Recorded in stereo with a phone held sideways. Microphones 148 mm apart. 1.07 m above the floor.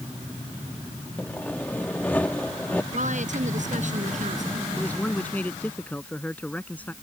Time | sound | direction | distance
1.2 | sawing | 10° left (ahead or behind) | ?
2.9 | a woman speaking | 65° right (ahead or behind) | ?
4.8 | a man speaking | 10° left (ahead or behind) | ?